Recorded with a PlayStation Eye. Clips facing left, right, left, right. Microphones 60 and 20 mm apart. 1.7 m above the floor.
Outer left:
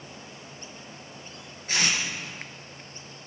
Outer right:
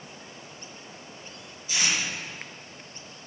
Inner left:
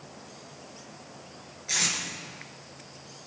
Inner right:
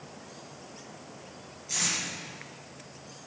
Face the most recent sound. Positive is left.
turn(degrees=55)  # may be behind; listen again after turning